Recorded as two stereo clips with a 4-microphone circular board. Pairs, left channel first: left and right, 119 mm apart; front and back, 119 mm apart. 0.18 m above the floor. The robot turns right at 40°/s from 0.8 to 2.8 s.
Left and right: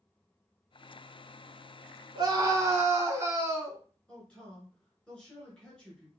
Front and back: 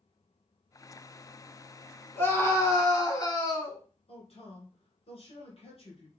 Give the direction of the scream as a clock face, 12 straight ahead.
2 o'clock.